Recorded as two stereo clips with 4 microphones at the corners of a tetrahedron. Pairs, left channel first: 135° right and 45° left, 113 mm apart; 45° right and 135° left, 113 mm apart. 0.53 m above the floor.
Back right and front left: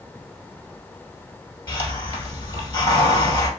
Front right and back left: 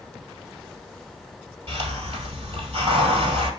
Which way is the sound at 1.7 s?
165° left.